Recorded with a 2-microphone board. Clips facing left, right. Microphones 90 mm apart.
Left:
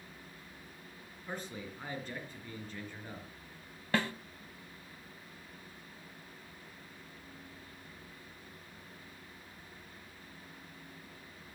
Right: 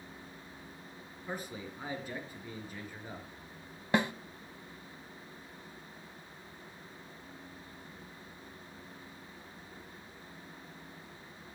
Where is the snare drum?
20° right (ahead or behind), 0.9 m.